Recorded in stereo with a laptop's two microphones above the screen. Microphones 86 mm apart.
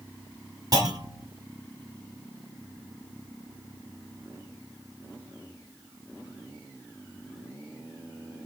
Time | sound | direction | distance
0.7 | a clunk | 45° right (ahead or behind) | 1.3 m